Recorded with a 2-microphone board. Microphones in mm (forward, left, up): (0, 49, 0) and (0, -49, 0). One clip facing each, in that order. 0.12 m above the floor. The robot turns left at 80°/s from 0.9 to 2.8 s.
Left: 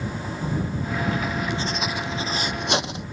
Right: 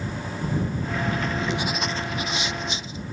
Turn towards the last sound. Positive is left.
turn(degrees=100)